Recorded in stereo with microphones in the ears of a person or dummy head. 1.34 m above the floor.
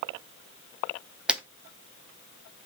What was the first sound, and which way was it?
A camera shutter, 10° right (ahead or behind).